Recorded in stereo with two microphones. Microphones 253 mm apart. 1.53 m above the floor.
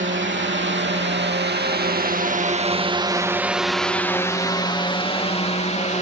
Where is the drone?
50° right (ahead or behind); by 6.0 s 30° left (ahead or behind).